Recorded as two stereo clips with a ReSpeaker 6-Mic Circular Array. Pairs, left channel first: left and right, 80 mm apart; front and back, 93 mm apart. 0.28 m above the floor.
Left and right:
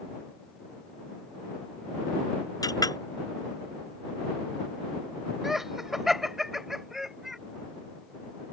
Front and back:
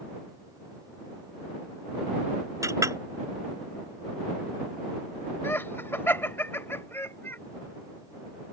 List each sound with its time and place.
2.6 s a clink: 125° left
5.4 s laughter: 10° right